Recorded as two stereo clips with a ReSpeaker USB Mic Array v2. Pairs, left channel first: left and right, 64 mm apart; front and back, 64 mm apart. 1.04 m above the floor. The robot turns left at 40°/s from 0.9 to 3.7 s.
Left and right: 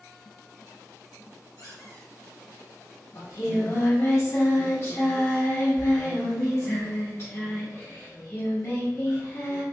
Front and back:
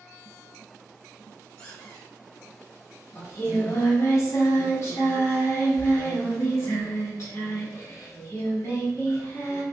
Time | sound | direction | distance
1.6 | a squeak | 55° left | 1.9 m
3.1 | singing | 65° left | 1.2 m